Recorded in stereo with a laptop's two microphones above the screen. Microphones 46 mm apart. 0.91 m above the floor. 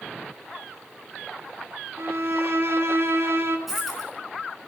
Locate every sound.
2.0 s a violin: 65° right (ahead or behind), 1.5 m
3.7 s a dropped coin: 5° right (ahead or behind), 4.5 m